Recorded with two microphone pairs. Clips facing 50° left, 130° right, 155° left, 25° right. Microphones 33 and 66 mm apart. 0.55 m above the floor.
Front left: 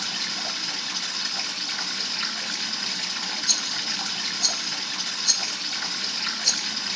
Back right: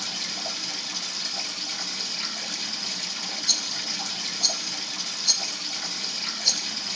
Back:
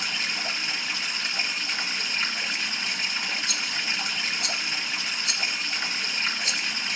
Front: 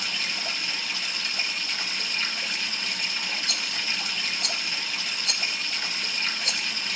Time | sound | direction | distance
0.0 | running water | 90° left | 1.6 m
3.5 | a rattle | 60° right | 0.6 m